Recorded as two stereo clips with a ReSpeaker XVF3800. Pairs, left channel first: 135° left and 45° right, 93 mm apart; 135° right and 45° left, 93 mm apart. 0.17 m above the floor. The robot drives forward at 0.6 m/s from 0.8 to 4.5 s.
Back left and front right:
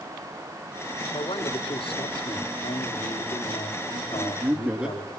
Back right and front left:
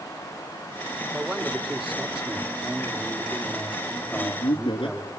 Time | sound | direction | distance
1.1 | a man speaking | 125° left | 5 m
4.1 | a man speaking | 110° right | 4 m